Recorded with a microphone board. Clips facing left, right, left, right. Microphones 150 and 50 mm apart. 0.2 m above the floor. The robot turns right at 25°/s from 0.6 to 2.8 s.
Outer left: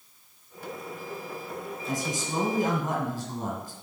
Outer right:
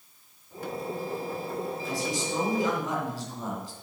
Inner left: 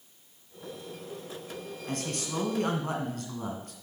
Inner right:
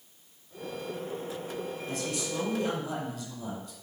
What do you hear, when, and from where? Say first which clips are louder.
1.9 s a man speaking: outer left 3 dB, inner left 2 dB; 50° left (ahead or behind), 1.8 m